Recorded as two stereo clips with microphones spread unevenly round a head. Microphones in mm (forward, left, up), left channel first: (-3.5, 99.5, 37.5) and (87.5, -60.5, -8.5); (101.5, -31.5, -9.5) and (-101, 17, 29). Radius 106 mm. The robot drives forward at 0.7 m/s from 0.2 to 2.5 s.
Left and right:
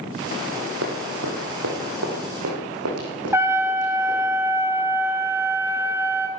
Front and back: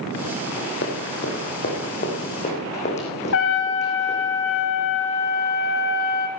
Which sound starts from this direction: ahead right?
Running footsteps, at 0.8 s.